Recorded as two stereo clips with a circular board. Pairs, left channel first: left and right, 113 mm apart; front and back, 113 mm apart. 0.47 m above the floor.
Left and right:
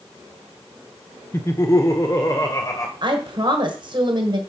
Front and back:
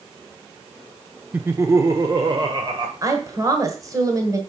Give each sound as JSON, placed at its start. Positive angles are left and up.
{"t": 1.3, "sound": "laughter", "azimuth_deg": 120, "distance_m": 0.7}
{"t": 3.0, "sound": "a woman speaking", "azimuth_deg": -125, "distance_m": 1.5}